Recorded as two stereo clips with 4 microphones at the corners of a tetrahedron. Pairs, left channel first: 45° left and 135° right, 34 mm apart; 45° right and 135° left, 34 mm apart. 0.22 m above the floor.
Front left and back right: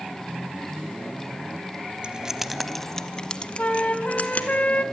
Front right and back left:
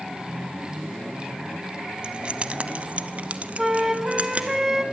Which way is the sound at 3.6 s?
65° left.